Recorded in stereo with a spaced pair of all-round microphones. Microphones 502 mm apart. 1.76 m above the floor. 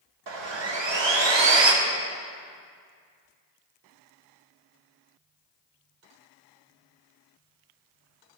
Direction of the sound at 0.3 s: 60° right (ahead or behind).